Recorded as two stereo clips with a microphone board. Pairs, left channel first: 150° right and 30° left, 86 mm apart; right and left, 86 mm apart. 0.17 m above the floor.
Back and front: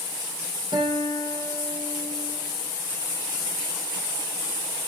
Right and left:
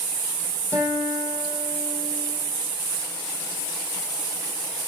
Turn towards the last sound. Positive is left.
turn(degrees=35)